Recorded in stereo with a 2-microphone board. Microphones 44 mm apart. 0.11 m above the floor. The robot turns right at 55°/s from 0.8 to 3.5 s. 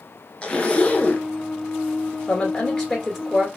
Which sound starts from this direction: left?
A zipper, at 0.4 s.